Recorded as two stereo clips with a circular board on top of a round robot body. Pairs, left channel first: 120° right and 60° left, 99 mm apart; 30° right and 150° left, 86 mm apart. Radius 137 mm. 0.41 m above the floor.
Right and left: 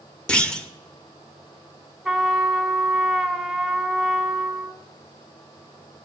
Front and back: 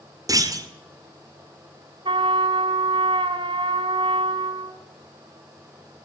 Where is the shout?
I don't hear a shout.